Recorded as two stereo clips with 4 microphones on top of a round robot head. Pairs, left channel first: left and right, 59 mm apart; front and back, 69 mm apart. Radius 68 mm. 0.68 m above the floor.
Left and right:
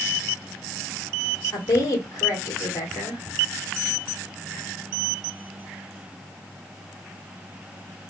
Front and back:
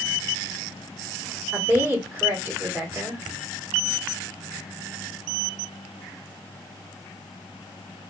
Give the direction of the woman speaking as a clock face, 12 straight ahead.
8 o'clock.